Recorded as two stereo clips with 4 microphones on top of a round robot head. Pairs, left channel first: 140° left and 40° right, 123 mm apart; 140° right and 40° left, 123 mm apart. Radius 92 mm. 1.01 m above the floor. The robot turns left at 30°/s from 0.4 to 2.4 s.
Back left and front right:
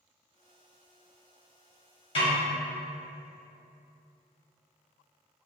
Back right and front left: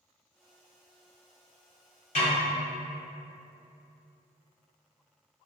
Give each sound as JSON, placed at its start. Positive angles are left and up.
{"t": 2.1, "sound": "a snare drum", "azimuth_deg": -175, "distance_m": 1.7}